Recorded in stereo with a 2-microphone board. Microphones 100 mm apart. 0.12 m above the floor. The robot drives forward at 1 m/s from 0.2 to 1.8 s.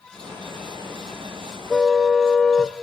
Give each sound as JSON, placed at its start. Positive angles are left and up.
{"t": 1.7, "sound": "a car horn", "side_deg": 5, "distance_m": 3.0}